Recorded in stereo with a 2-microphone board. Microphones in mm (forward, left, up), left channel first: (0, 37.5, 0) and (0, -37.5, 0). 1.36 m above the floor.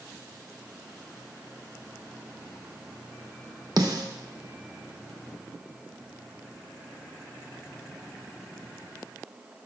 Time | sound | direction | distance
3.8 | a snare drum | 55° right (ahead or behind) | 0.9 m